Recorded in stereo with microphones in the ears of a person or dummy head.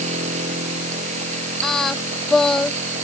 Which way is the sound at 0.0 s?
40° right (ahead or behind).